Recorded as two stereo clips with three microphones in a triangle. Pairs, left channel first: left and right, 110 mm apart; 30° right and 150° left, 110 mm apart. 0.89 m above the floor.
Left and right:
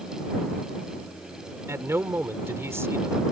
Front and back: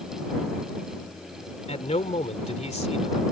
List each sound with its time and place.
1.7 s a man speaking: 25° right